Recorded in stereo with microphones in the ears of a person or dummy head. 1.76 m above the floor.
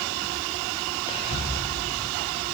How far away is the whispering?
About 1.0 m.